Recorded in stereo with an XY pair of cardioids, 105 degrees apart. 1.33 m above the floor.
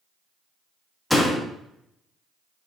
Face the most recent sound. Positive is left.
turn(degrees=5)